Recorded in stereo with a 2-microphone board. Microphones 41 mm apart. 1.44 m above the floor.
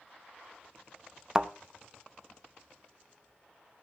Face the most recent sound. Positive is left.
turn(degrees=-20)  # may be behind; listen again after turning